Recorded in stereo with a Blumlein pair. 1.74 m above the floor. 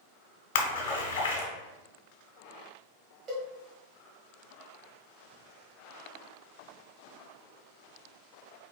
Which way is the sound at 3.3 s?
20° right.